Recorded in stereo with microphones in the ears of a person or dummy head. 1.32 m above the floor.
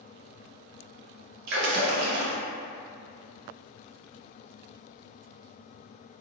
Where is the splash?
55° right (ahead or behind), 0.6 m.